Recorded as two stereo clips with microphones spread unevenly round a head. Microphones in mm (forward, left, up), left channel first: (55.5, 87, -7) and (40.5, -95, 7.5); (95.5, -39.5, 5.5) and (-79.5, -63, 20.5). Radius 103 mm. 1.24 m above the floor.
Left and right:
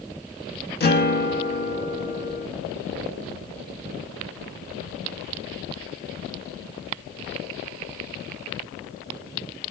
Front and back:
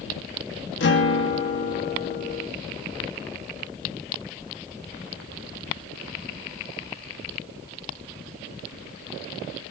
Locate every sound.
0.8 s a guitar: 50° left, 1.4 m